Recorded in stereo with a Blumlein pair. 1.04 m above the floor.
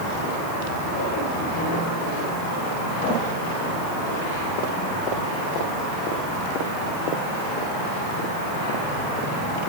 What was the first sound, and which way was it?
Only background noise.